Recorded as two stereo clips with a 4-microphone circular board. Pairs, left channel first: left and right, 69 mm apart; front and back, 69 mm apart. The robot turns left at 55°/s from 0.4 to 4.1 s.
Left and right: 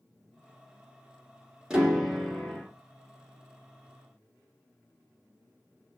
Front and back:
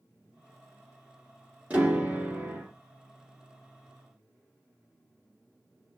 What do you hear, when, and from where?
1.7 s a piano: 150° right, 1.3 m; by 2.7 s 155° left, 1.3 m